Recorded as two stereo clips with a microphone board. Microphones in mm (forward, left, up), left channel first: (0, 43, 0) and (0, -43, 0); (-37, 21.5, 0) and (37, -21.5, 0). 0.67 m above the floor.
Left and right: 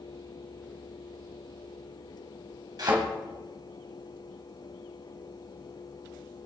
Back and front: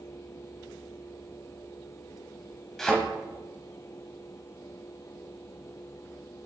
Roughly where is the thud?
Behind right.